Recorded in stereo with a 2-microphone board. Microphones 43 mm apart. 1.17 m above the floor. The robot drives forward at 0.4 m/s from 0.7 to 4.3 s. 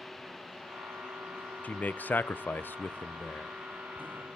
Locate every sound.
1.6 s a man speaking: 40° left (ahead or behind), 0.6 m; by 3.5 s 35° left (ahead or behind), 0.6 m